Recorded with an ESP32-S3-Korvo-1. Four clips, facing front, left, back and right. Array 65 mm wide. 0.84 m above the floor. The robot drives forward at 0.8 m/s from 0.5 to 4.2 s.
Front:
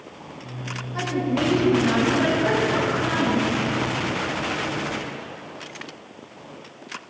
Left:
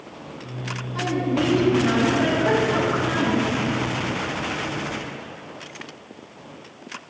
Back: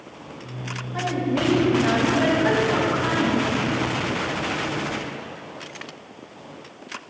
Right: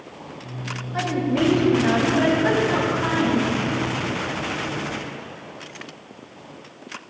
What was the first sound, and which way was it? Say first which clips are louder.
A woman speaking: right 1 dB, even; 110° right.